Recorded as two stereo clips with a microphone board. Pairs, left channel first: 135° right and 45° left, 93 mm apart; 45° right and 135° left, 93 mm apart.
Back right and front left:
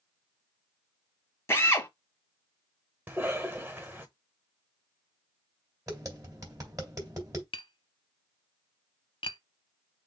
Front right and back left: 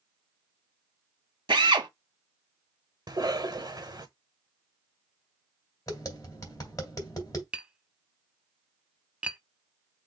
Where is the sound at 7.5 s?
150° right, 0.7 m.